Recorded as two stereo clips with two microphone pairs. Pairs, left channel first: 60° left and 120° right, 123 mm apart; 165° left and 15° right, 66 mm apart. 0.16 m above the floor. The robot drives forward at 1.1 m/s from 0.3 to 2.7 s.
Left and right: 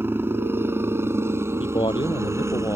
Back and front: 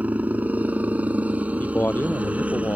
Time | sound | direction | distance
0.0 | a helicopter | 65° right | ?
1.6 | a man speaking | 100° left | ?